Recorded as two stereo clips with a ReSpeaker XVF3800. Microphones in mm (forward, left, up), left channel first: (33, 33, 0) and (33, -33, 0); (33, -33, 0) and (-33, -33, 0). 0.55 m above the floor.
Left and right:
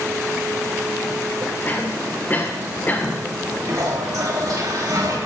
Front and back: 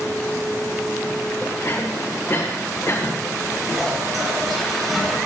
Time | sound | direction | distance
1.6 | a cough | 35° left | 2 m
3.7 | a toilet flushing | 90° right | 3.5 m